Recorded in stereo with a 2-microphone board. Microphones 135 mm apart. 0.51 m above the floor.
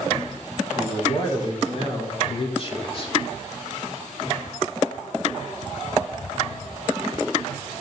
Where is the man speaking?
40° left (ahead or behind), 1.7 m.